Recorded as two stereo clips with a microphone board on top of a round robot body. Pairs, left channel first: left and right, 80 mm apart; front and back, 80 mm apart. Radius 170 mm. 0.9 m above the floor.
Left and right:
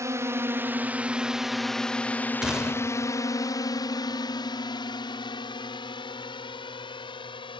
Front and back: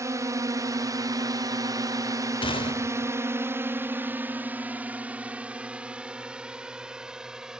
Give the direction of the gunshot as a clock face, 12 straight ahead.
12 o'clock.